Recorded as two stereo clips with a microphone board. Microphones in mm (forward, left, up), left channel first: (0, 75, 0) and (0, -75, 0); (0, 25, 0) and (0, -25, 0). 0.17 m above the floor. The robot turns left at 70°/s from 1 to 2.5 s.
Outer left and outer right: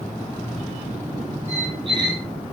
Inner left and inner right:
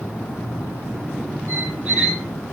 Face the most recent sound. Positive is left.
turn(degrees=175)